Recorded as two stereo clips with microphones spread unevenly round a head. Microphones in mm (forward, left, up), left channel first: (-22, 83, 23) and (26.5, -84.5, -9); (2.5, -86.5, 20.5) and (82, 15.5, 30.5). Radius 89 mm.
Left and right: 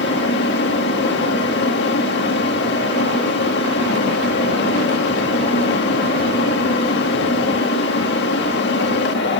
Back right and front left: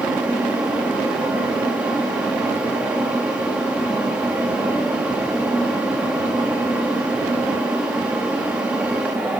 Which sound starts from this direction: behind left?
A fan, at 0.0 s.